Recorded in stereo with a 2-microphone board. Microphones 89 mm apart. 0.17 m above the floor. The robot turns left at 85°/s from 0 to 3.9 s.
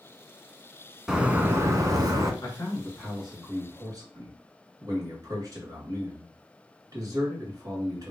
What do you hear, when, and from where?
1.1 s a bird: 5° right, 0.7 m; by 2.3 s 110° right, 0.7 m
2.4 s a man speaking: 65° left, 2.5 m; by 8.1 s 65° right, 2.5 m